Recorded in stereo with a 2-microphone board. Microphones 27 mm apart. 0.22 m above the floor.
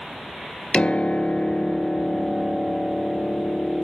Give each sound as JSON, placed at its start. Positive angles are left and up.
{"t": 0.7, "sound": "a piano", "side_deg": 45, "distance_m": 0.6}